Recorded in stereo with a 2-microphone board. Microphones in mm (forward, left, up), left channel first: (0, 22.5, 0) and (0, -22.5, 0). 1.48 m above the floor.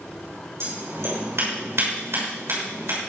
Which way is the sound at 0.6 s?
75° right (ahead or behind).